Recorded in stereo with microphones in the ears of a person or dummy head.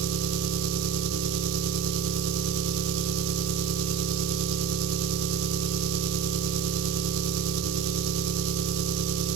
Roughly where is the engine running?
Right.